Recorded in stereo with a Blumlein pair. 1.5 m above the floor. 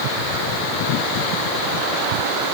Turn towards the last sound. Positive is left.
No sound to turn to.